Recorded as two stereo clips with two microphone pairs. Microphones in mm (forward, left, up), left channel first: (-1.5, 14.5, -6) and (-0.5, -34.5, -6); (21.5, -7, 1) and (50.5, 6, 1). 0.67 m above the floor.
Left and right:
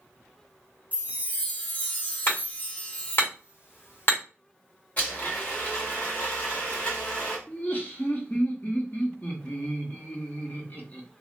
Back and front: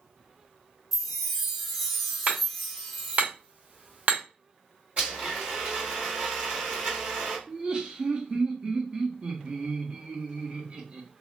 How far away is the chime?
About 0.9 m.